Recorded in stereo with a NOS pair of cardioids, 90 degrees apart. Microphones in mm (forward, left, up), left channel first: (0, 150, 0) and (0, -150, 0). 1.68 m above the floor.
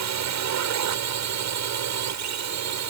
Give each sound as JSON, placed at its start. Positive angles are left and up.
{"t": 0.0, "sound": "a drone", "azimuth_deg": -65}